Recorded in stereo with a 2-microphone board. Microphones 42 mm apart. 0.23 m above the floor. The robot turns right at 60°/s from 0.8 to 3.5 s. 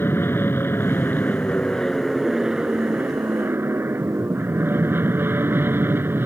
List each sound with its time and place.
0.0 s an aircraft: 100° left; by 6.3 s 100° right